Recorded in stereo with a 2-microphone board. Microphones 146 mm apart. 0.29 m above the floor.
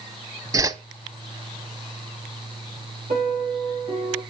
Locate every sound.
0.5 s a whoosh: 25° right (ahead or behind), 0.6 m
3.1 s a piano: 75° right (ahead or behind), 7.5 m